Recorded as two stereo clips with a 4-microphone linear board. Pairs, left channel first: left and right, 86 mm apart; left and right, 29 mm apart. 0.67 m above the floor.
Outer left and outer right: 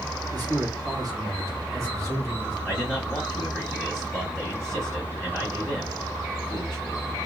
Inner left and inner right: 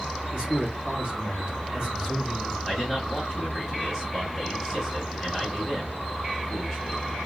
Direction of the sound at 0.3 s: 50° right (ahead or behind).